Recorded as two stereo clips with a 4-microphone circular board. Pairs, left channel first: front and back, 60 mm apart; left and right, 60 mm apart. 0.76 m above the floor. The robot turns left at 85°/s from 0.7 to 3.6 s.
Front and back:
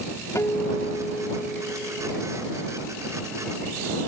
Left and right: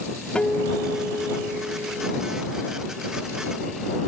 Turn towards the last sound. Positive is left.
turn(degrees=135)